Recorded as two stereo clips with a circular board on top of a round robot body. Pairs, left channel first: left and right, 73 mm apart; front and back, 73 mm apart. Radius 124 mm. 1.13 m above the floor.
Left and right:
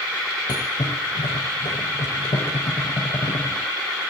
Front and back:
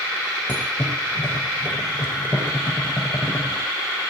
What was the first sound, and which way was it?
A thud, 60° left.